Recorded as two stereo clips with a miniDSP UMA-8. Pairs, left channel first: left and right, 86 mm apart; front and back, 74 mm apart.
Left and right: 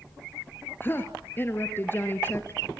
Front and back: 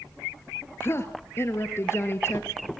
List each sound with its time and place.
0.8 s a woman speaking: 35° left, 1.5 m